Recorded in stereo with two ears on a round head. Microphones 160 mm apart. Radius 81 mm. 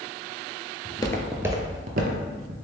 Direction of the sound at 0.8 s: 30° left (ahead or behind).